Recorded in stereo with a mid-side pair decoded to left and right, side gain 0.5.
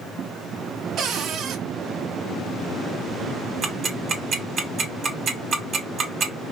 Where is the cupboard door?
65° right, 0.7 m.